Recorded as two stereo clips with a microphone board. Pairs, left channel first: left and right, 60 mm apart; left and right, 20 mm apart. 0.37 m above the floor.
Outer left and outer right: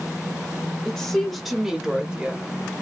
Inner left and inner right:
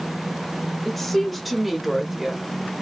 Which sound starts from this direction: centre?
A woman speaking, at 0.8 s.